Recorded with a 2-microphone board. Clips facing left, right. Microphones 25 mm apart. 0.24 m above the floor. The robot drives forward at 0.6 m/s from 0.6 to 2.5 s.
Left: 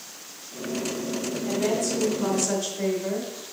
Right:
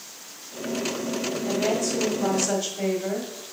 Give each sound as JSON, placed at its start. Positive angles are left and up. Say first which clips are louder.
{"t": 1.4, "sound": "a woman speaking", "louder": "even", "side_deg": -20, "distance_m": 1.2}